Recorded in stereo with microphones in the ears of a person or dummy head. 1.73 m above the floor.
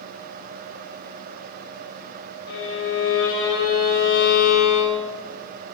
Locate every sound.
2.5 s a violin: 75° left (ahead or behind), 5 m